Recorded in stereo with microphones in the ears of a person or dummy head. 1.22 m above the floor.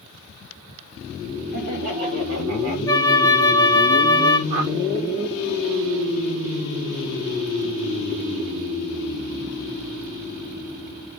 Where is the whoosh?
55° right (ahead or behind), 3 m.